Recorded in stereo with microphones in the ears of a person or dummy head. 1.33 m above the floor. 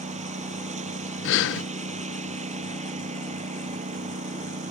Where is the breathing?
65° left (ahead or behind).